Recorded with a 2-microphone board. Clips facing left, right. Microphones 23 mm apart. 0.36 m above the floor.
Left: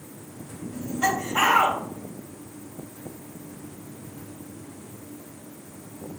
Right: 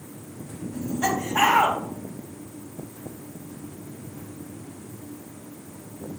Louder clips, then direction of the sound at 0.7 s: Left 1 dB; 30° left (ahead or behind).